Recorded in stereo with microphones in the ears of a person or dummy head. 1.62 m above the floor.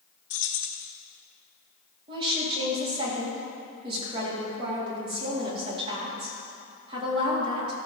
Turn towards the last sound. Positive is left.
turn(degrees=-30)  # may be behind; listen again after turning